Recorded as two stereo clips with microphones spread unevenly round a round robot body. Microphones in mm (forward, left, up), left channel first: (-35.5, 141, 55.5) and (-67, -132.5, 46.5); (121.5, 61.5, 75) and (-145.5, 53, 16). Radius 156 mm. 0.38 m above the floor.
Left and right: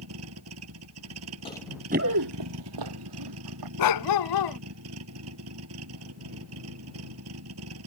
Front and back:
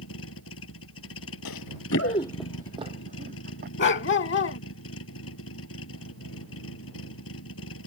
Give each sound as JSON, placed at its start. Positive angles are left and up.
{"t": 0.0, "sound": "a vehicle", "azimuth_deg": -50}
{"t": 1.4, "sound": "running footsteps", "azimuth_deg": 10}
{"t": 3.8, "sound": "a dog barking", "azimuth_deg": 55}